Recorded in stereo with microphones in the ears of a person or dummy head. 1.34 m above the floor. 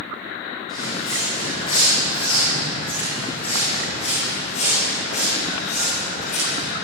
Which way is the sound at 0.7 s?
40° left (ahead or behind).